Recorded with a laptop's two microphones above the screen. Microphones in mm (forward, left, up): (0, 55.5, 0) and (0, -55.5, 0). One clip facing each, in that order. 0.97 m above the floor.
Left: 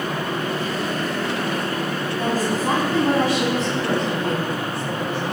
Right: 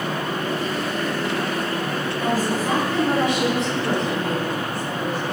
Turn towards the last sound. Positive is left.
turn(degrees=25)  # may be behind; listen again after turning